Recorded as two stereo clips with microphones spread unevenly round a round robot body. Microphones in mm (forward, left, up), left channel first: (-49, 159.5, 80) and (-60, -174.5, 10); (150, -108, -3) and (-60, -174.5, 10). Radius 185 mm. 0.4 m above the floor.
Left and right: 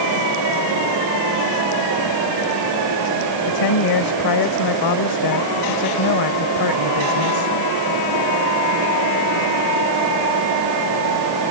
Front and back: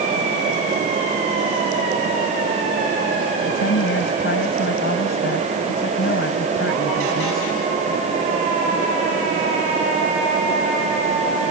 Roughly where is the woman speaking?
Ahead left.